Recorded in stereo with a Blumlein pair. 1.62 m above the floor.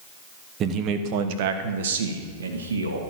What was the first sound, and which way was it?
A man speaking, 30° right.